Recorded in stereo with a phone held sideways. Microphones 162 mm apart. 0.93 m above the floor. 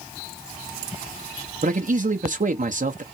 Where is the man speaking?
50° right (ahead or behind), 0.8 m.